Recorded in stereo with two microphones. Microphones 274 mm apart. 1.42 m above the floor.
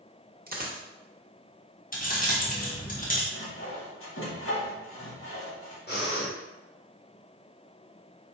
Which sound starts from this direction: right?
A dropped coin, at 0.5 s.